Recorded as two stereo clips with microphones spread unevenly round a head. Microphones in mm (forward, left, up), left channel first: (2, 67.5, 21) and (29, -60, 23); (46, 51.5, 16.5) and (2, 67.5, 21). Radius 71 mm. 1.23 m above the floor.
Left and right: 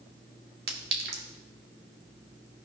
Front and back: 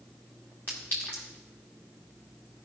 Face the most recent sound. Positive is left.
turn(degrees=-100)